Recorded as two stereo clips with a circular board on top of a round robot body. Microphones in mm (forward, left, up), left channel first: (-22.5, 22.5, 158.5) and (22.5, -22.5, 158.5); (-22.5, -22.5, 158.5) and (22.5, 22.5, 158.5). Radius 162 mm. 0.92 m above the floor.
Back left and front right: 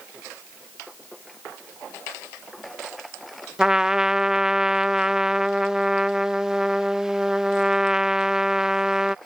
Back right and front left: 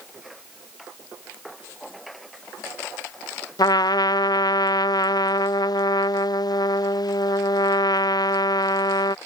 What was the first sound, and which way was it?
A trumpet, 125° right.